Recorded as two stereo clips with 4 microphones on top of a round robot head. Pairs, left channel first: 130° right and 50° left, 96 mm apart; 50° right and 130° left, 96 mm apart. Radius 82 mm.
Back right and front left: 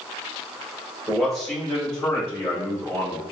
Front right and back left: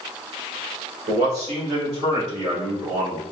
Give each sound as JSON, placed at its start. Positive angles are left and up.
{"t": 1.1, "sound": "a man speaking", "azimuth_deg": 140, "distance_m": 1.4}